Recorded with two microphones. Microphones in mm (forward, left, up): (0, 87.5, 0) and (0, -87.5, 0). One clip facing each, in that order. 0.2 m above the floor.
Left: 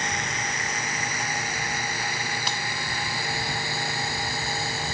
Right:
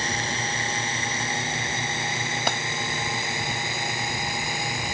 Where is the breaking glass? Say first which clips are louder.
Right 6 dB; 60° right (ahead or behind).